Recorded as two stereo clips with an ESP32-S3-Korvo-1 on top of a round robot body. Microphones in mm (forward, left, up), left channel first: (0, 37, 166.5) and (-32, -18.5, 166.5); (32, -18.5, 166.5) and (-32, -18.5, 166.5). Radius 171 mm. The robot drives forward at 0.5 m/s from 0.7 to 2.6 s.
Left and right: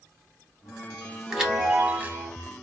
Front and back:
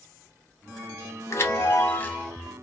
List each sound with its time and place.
1.3 s a chime: 40° right, 1.1 m; by 2.3 s 70° right, 0.8 m